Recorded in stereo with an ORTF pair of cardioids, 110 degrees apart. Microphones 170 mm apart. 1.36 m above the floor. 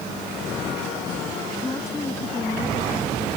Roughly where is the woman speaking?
Ahead.